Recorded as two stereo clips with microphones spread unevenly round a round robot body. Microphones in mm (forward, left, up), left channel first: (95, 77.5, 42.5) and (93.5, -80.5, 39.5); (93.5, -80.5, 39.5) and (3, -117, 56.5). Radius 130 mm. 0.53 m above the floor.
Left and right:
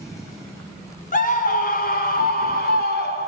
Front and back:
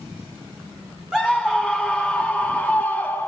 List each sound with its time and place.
1.1 s a scream: 110° left, 1.9 m; by 3.3 s 100° left, 3 m